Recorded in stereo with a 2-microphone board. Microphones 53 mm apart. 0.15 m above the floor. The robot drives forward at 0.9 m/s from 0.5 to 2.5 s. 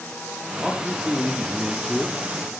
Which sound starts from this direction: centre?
A man speaking, at 0.6 s.